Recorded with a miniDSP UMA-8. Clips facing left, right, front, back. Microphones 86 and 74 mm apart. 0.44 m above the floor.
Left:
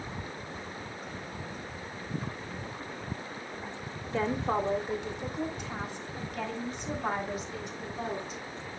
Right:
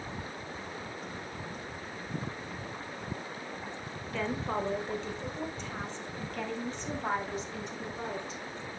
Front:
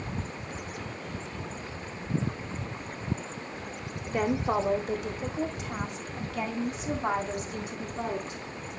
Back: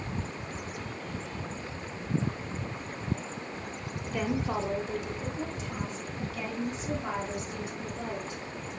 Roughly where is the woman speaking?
Ahead left.